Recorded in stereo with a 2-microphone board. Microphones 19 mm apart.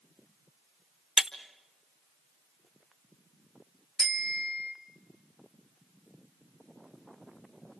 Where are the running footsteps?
No running footsteps in this recording.